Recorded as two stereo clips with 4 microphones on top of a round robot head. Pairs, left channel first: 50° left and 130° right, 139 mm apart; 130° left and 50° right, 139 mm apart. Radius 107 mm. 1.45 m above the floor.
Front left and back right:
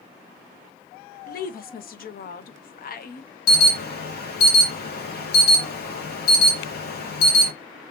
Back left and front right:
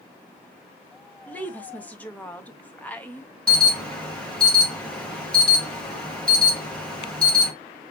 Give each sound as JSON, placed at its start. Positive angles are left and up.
{"t": 1.3, "sound": "a woman speaking", "azimuth_deg": 50, "distance_m": 0.9}
{"t": 3.5, "sound": "an alarm", "azimuth_deg": 45, "distance_m": 1.6}